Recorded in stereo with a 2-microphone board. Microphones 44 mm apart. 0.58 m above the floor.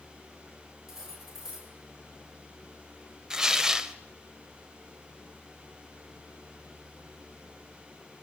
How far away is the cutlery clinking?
About 6 m.